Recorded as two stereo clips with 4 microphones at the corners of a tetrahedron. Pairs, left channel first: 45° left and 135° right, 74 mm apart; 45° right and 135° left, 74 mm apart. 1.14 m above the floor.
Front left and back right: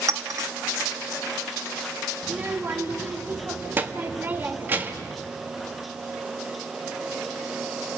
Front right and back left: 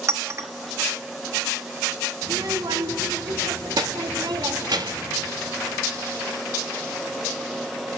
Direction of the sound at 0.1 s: 175° right.